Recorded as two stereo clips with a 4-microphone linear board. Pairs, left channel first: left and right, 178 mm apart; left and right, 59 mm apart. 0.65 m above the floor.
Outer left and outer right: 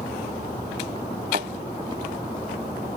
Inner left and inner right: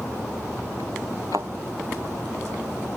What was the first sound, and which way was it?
A thud, 50° right (ahead or behind).